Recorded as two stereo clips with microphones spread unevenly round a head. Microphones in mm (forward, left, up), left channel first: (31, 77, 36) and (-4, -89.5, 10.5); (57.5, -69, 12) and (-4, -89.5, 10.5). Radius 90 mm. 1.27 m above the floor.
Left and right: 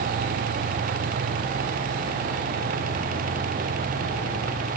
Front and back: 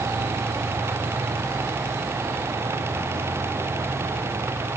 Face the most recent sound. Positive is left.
No sound to turn to.